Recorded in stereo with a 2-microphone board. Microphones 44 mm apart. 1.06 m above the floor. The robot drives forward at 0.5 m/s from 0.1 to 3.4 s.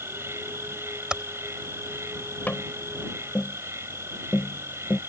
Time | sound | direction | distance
0.0 | an insect | 75° right (ahead or behind) | ?
1.1 | typing on a keyboard | 20° right (ahead or behind) | ?
2.5 | tapping | 45° left (ahead or behind) | ?